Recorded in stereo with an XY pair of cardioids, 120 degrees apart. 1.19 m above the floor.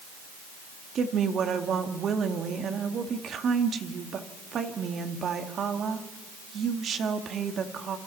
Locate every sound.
0.9 s a woman speaking: 50° right, 2 m